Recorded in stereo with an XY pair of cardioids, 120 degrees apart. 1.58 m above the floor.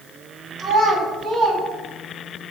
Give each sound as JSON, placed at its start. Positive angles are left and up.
{"t": 0.6, "sound": "a child speaking", "azimuth_deg": -45, "distance_m": 2.0}